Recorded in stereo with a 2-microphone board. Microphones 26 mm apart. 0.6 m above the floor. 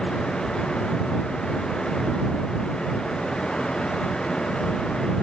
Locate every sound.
Only background noise.